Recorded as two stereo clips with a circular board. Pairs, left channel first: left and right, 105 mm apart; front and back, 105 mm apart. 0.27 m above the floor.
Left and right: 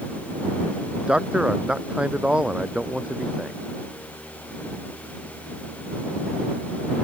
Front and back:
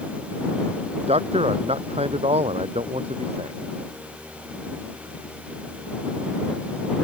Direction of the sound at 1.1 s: 170° right.